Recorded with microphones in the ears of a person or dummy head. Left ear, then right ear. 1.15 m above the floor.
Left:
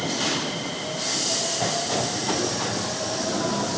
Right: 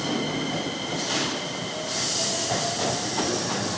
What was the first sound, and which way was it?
Only background noise.